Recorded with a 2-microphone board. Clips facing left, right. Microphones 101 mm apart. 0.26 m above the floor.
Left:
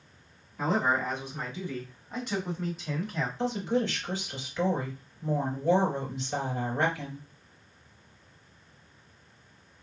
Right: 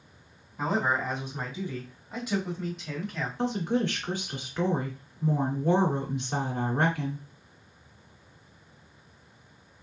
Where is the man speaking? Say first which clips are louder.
Even; 20° right (ahead or behind), 2 m; by 3.3 s 10° left (ahead or behind), 1.7 m.